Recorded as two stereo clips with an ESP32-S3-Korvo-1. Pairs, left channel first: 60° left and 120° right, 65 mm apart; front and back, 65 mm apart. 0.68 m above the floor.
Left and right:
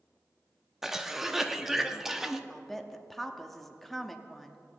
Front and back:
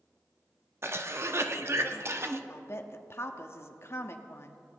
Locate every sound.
0.8 s a cough: 155° left, 0.8 m
2.5 s a woman speaking: 25° right, 0.7 m